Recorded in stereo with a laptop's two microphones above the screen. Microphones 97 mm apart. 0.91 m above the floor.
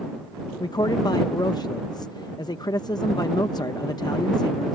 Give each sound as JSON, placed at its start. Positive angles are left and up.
{"t": 0.6, "sound": "a man speaking", "side_deg": 45}